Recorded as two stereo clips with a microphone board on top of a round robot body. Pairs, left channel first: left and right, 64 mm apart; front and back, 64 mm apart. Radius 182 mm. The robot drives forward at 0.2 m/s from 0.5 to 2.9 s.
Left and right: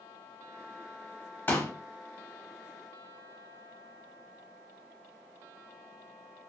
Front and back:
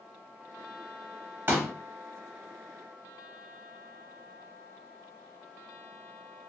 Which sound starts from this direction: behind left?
A pop, at 1.5 s.